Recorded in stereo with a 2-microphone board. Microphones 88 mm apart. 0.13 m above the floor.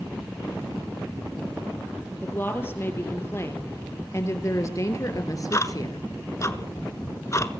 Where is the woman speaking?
25° left (ahead or behind), 4.5 m; by 6.1 s 45° left (ahead or behind), 2.5 m.